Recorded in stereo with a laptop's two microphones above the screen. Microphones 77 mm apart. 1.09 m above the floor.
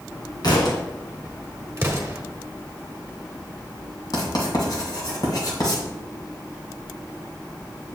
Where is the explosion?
30° right (ahead or behind), 0.9 m.